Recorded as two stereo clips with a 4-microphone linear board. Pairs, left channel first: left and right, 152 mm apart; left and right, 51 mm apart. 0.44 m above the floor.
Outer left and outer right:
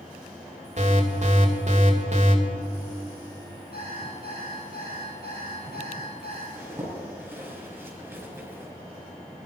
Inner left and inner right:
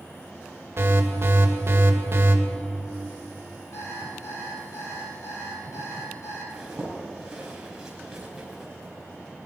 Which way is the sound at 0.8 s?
50° right (ahead or behind).